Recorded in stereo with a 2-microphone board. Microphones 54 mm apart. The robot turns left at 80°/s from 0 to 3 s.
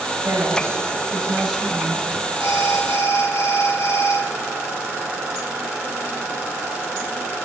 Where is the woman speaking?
75° right, 4.5 m; by 2.0 s 140° left, 4.5 m.